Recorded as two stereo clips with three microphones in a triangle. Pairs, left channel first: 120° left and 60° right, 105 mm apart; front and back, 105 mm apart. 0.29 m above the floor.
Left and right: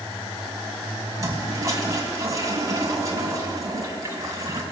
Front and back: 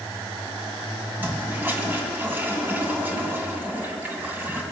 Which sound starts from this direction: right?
A toilet flushing, at 1.2 s.